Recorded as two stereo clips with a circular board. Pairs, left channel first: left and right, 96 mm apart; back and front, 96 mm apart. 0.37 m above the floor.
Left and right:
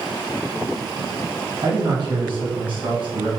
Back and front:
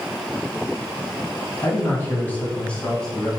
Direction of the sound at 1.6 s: 125° right.